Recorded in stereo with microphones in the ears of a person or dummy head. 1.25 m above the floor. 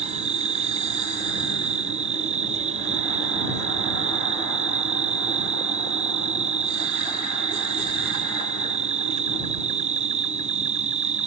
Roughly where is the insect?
Right.